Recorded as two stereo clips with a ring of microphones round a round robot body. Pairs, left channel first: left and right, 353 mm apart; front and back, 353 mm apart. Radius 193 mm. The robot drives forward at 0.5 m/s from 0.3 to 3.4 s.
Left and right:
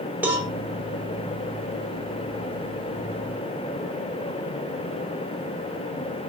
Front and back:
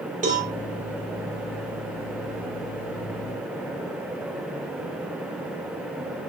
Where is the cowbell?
165° right, 0.8 m; by 0.5 s 170° right, 0.8 m.